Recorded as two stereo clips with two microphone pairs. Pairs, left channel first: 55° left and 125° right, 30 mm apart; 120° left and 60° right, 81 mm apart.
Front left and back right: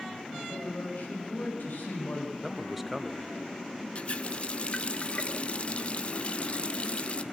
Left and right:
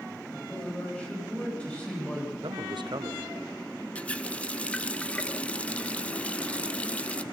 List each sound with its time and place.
0.3 s a man speaking: 45° left, 8.5 m
2.4 s a man speaking: 40° right, 1.1 m
4.0 s a running tap: 60° left, 0.8 m